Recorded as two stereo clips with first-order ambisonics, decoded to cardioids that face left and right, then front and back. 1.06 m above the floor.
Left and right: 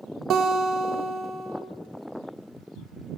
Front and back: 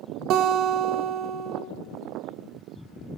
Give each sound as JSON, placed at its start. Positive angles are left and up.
{"t": 0.3, "sound": "a guitar", "azimuth_deg": -140, "distance_m": 1.1}